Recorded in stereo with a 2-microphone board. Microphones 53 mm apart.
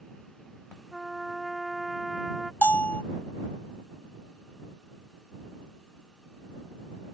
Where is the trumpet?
5° left (ahead or behind).